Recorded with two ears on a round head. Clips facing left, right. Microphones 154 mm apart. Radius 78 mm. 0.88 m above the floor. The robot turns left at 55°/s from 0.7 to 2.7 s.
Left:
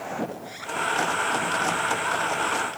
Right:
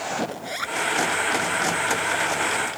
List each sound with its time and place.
0.3 s a zipper: 75° right (ahead or behind); by 0.8 s 70° right (ahead or behind)